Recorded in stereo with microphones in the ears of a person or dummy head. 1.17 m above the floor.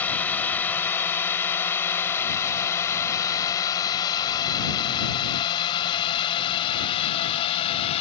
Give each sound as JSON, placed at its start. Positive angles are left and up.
{"t": 0.0, "sound": "a drone", "side_deg": 10}